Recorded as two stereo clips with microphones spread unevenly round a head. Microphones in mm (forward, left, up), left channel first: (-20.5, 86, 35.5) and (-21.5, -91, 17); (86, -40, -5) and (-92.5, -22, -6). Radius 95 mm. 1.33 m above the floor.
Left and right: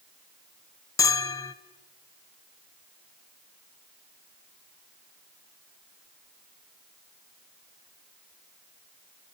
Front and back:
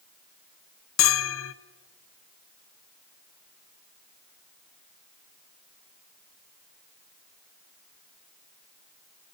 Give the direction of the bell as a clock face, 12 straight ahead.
12 o'clock.